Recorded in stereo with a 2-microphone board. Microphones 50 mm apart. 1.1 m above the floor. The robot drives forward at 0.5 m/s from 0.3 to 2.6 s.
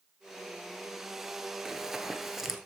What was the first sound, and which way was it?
Running footsteps, 10° right (ahead or behind).